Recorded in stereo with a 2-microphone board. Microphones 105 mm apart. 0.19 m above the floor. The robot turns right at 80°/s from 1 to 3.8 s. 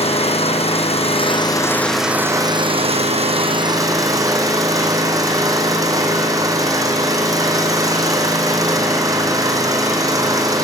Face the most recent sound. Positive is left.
turn(degrees=-35)